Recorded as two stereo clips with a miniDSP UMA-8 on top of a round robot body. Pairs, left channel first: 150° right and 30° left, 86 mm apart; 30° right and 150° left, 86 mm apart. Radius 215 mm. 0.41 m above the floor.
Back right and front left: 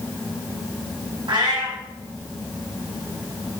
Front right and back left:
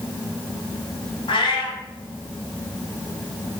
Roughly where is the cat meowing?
Ahead.